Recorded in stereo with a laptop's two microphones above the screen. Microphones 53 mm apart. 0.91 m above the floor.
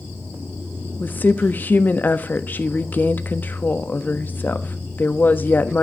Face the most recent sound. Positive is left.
turn(degrees=40)  # may be behind; listen again after turning